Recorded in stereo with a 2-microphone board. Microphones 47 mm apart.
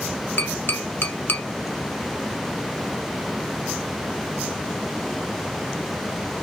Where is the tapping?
45° left (ahead or behind), 1.0 m.